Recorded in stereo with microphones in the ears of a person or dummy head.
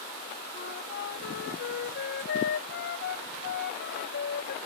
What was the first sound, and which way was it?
A flute, 65° left (ahead or behind).